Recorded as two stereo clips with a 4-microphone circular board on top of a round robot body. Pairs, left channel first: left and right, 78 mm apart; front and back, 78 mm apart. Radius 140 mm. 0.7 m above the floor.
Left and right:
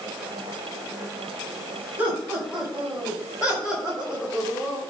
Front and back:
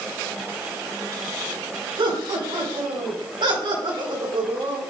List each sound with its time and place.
2.0 s laughter: 165° right, 4.5 m; by 4.8 s 175° right, 3 m